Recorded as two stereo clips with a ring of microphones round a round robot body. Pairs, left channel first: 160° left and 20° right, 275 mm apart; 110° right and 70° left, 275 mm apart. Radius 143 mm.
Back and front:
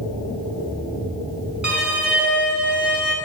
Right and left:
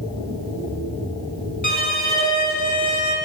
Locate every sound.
1.6 s a violin: 105° right, 1.3 m